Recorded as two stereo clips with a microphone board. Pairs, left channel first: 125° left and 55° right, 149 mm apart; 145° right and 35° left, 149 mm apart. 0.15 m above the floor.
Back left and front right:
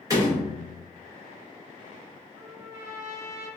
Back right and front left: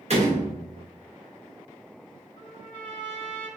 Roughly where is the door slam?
Ahead.